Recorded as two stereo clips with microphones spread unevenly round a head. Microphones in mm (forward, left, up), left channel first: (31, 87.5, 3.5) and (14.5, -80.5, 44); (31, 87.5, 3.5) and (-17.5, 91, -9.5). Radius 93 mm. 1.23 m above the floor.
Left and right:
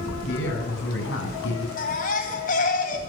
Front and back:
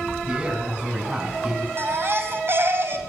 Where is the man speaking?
110° left, 9.5 m; by 1.7 s 105° left, 9.5 m.